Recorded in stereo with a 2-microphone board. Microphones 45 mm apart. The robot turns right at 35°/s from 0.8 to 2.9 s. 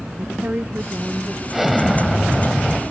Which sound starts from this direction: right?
A woman speaking, at 0.2 s.